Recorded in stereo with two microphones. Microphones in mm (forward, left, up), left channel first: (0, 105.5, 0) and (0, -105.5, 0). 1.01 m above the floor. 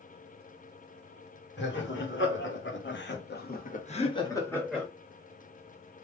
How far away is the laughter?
About 2.0 m.